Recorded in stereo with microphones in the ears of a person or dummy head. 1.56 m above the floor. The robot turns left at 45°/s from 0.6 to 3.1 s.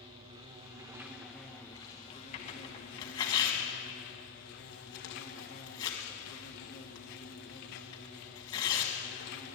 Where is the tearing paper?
35° left (ahead or behind), 1.8 m; by 8.9 s 20° left (ahead or behind), 1.8 m.